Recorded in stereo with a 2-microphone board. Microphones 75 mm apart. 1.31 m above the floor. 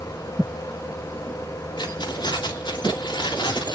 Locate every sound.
1.8 s keys jangling: 75° left (ahead or behind), 2.5 m; by 3.8 s 80° left, 2.5 m